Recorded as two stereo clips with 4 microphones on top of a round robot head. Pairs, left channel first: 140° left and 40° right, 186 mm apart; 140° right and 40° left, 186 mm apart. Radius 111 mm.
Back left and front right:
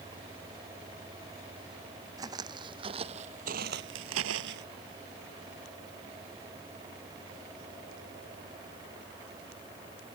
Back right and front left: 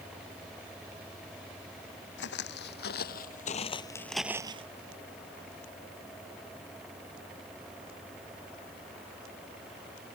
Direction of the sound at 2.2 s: 115° right.